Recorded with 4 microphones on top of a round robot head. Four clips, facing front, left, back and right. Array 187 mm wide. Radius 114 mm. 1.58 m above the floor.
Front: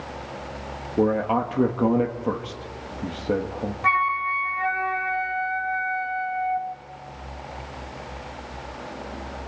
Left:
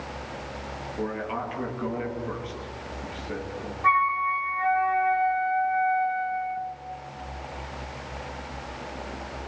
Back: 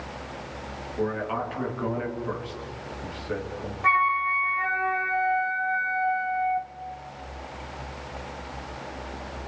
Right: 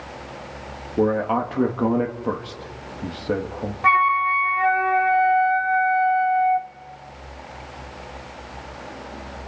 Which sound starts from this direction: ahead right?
A man speaking, at 1.0 s.